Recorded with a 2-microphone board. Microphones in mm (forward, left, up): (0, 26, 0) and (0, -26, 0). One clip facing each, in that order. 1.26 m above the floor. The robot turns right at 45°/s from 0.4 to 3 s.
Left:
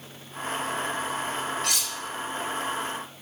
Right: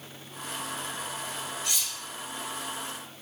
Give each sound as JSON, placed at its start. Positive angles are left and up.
{"t": 1.6, "sound": "cutlery clinking", "side_deg": 65, "distance_m": 0.9}